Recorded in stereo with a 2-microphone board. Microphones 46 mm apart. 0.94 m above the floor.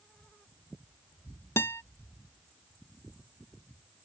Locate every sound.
1.6 s a guitar: 70° left (ahead or behind)